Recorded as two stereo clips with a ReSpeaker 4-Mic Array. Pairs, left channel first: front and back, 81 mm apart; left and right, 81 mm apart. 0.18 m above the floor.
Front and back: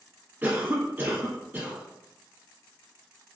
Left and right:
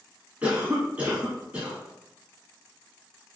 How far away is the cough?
About 1.1 m.